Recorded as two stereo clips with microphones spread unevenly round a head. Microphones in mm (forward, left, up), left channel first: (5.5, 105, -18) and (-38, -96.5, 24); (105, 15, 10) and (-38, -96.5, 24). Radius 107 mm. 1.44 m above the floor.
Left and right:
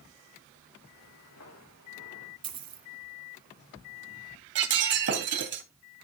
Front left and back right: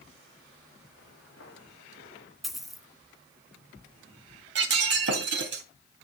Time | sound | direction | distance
1.0 | footsteps | 80° left | 7 m
2.4 | a dropped coin | 55° right | 1.9 m
4.5 | breaking glass | 130° right | 3.5 m